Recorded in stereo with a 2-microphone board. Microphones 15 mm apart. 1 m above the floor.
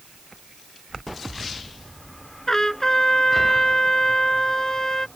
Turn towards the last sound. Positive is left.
turn(degrees=25)  # may be behind; listen again after turning